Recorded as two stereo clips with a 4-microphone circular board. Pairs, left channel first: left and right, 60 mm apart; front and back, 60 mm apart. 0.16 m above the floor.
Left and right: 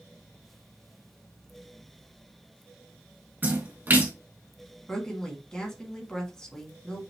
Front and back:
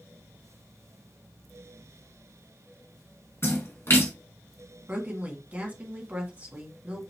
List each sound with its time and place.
3.4 s a splash: 35° right, 2.5 m
4.9 s a woman speaking: 155° left, 1.7 m